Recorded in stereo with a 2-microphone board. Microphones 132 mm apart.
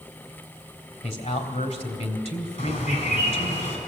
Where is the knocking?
No knocking in this recording.